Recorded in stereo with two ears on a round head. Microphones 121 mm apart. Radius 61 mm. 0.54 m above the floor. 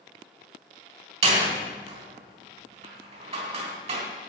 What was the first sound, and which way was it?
A door slam, 45° right (ahead or behind).